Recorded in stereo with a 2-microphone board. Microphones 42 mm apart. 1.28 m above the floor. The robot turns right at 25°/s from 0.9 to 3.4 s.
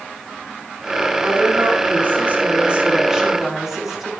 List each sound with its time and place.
1.2 s a woman speaking: 65° right, 3 m; by 4.1 s 10° right, 3 m